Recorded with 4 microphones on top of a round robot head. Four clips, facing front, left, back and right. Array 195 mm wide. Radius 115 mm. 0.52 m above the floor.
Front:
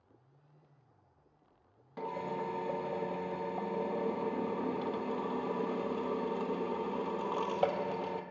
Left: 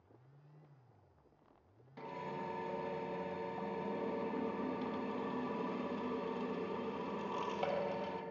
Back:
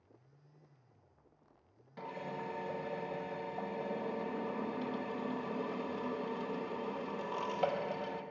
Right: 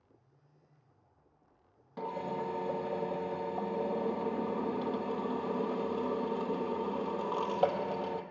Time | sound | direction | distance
2.0 | a drill | 50° right | 1.2 m